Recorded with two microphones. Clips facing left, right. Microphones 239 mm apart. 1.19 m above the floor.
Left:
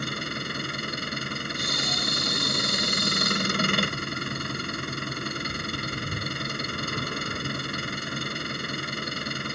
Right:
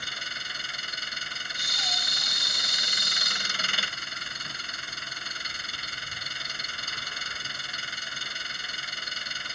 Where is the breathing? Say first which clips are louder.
Left 12 dB; 65° left (ahead or behind).